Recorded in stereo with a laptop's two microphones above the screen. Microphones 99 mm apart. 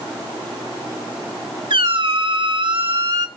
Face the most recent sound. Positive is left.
turn(degrees=-55)  # may be behind; listen again after turning